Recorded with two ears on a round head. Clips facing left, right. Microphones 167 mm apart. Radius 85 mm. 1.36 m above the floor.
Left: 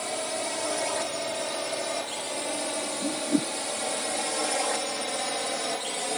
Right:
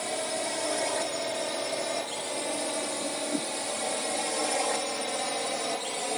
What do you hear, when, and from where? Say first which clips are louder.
0.0 s a drone: even; centre (ahead or behind)
3.0 s a whoosh: left 5 dB; 35° left (ahead or behind)